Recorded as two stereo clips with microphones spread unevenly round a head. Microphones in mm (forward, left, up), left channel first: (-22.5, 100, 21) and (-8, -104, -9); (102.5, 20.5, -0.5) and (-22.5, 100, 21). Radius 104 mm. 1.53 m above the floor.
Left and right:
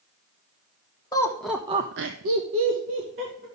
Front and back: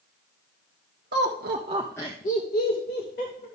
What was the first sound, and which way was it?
Laughter, 170° left.